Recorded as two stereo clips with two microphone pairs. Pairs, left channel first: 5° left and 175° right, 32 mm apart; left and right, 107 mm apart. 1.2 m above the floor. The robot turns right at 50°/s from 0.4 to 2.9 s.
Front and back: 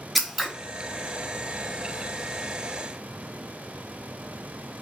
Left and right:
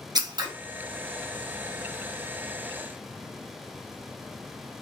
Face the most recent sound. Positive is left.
turn(degrees=35)